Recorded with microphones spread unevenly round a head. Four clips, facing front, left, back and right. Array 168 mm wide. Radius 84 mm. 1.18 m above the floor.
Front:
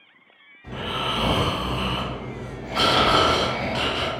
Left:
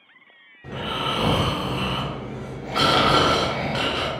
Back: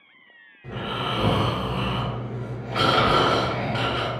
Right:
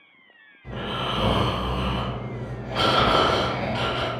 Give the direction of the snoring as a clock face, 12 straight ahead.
8 o'clock.